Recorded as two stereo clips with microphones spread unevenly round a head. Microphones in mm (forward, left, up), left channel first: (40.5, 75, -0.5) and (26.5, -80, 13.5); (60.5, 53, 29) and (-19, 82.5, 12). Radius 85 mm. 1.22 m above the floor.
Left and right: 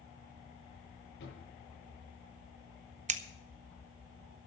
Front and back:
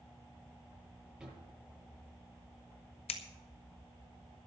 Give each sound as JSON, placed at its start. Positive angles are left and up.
{"t": 1.2, "sound": "a drawer", "azimuth_deg": 80, "distance_m": 8.5}
{"t": 3.1, "sound": "scissors", "azimuth_deg": -50, "distance_m": 1.1}